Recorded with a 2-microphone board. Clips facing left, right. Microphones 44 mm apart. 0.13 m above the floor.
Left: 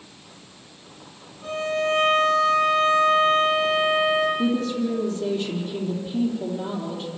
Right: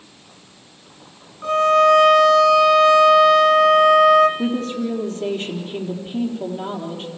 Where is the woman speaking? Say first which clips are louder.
Even; 45° right (ahead or behind), 3.5 m.